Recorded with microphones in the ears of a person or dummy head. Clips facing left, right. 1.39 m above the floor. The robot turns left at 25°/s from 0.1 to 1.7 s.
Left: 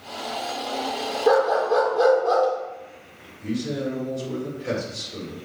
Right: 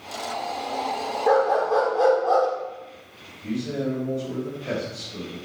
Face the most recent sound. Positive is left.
turn(degrees=55)  # may be behind; listen again after turning